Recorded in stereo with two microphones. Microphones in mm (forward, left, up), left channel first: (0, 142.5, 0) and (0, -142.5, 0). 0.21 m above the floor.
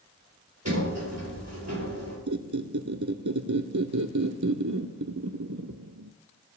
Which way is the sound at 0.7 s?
65° right (ahead or behind).